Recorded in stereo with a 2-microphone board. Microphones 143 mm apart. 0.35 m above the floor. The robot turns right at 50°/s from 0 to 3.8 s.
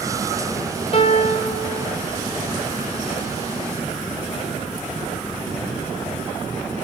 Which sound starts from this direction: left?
A piano, at 0.9 s.